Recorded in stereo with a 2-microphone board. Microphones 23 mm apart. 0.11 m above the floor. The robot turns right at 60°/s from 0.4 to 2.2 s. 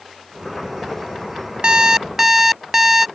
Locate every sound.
1.6 s an alarm clock: 50° right; by 3.1 s 15° right